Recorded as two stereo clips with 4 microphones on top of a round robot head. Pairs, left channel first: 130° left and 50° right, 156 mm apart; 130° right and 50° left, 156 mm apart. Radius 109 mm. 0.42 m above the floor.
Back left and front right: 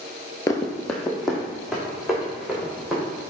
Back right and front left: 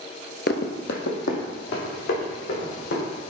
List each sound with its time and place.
0.5 s running footsteps: 160° right, 0.5 m; by 3.1 s 135° right, 4.5 m